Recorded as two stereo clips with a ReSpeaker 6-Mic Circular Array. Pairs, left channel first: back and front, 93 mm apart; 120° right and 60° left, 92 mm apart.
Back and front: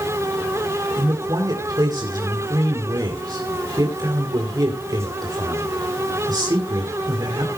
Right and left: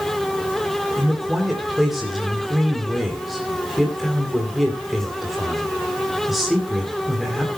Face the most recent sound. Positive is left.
turn(degrees=-30)